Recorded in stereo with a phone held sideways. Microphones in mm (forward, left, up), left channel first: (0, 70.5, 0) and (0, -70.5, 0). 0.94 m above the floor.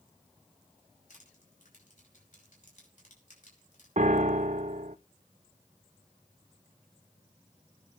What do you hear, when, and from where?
1.1 s crushing: 65° left (ahead or behind), 5 m
4.0 s a piano: 60° right (ahead or behind), 0.5 m